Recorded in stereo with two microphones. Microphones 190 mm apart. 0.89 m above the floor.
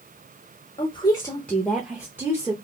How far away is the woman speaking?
About 0.7 m.